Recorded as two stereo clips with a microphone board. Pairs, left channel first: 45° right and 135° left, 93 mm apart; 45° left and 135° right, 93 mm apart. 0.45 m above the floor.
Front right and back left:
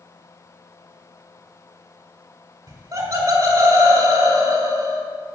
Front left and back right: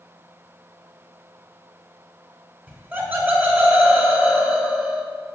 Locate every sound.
2.7 s laughter: 165° left, 1.8 m